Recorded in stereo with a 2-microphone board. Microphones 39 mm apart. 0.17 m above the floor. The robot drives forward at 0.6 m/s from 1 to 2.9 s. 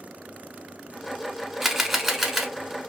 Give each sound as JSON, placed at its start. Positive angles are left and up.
{"t": 1.6, "sound": "a camera shutter", "side_deg": -5, "distance_m": 0.6}